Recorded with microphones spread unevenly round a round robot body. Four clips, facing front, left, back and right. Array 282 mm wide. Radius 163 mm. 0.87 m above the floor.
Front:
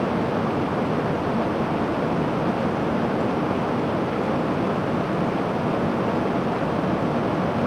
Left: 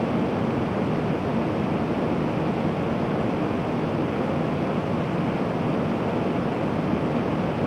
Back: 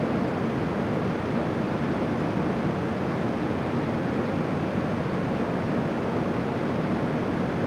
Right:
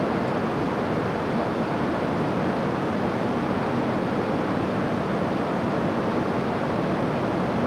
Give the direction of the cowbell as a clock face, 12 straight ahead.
I don't hear a cowbell.